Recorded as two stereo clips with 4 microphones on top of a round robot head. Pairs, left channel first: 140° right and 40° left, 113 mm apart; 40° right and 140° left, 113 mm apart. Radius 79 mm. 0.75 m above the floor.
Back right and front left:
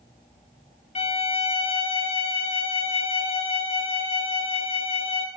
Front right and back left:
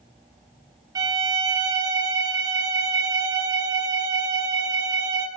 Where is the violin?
160° right, 2 m.